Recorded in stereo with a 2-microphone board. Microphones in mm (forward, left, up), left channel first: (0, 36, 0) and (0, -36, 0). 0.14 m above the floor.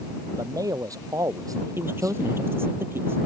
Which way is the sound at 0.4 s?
55° right (ahead or behind).